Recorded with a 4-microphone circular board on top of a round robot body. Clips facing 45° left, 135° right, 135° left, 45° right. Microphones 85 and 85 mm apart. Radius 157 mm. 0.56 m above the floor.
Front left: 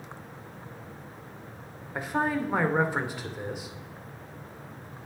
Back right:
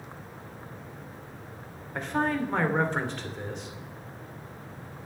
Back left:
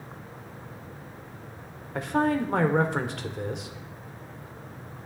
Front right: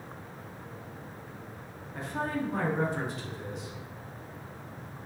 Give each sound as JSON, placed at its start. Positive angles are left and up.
{"t": 1.9, "sound": "a man speaking", "azimuth_deg": 125, "distance_m": 2.5}